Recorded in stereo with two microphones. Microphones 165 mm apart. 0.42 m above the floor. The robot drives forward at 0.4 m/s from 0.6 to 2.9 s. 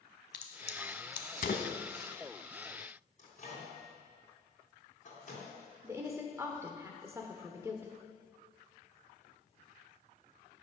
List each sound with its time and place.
0.3 s a crack: 85° left, 1.1 m; by 2.1 s 60° left (ahead or behind), 1.2 m
3.2 s a microwave: 50° left (ahead or behind), 3 m
5.8 s a woman speaking: 15° right (ahead or behind), 1.0 m